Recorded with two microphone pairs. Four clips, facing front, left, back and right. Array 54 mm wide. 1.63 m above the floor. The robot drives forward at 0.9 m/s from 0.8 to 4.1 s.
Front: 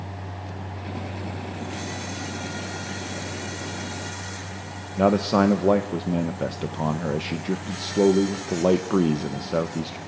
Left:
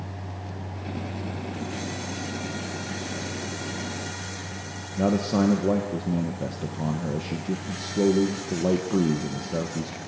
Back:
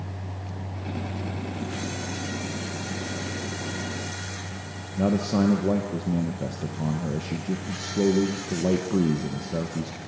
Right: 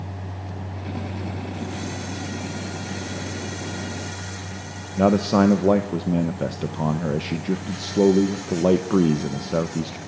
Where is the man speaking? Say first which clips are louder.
Right 5 dB, front 4 dB; 50° right, 1.1 m.